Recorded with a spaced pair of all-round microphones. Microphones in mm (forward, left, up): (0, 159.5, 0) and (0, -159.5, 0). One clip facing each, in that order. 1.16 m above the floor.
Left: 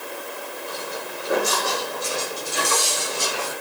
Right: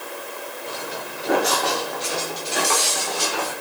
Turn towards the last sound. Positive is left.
turn(degrees=-80)